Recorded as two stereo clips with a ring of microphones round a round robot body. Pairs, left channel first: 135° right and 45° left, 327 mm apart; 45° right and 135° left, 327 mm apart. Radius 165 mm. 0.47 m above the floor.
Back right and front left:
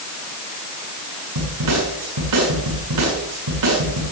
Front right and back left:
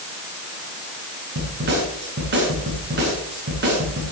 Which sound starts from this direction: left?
A snare drum, at 1.4 s.